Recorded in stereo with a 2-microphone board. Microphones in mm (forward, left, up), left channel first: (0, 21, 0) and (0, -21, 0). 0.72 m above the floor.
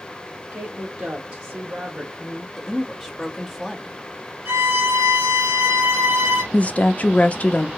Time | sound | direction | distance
0.5 | a woman speaking | 70° right (ahead or behind) | 1.8 m
2.6 | a woman speaking | centre (ahead or behind) | 1.1 m
4.5 | a violin | 55° right (ahead or behind) | 2.5 m
6.5 | a woman speaking | 35° left (ahead or behind) | 0.6 m